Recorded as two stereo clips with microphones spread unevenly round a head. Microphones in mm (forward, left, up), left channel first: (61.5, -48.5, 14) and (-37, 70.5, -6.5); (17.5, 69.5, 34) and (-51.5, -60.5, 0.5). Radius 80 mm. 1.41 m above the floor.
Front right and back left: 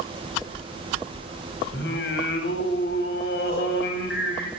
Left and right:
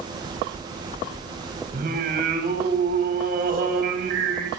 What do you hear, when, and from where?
1.7 s singing: 80° right, 9 m